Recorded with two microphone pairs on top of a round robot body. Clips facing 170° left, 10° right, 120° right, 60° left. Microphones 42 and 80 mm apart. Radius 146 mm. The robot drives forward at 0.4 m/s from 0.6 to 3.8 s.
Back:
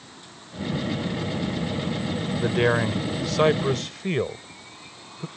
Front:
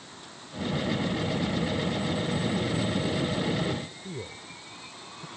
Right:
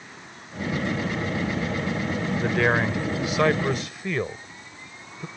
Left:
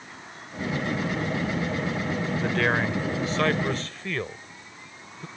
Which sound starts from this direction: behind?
A man speaking, at 2.4 s.